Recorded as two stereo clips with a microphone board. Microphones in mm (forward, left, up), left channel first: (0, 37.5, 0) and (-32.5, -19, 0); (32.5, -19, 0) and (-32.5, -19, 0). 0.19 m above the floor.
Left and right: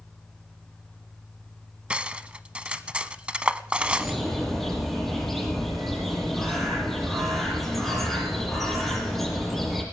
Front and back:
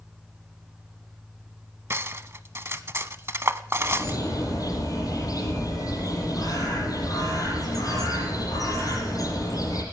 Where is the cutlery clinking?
175° left, 0.7 m.